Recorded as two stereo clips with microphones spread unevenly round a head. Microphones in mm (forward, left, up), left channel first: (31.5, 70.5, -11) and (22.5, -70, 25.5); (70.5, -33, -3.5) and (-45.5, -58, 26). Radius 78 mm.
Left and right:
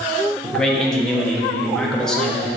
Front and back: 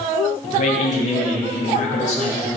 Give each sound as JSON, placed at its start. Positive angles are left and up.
{"t": 0.4, "sound": "a man speaking", "azimuth_deg": 5, "distance_m": 1.2}